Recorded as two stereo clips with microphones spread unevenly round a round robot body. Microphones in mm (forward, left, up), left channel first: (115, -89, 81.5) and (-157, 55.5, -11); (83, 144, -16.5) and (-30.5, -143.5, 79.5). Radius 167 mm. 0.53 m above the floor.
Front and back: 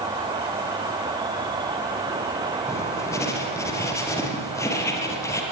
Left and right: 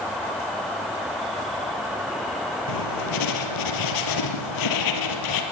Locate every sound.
0.0 s an insect: 125° left, 1.2 m
2.7 s writing: 55° left, 4.5 m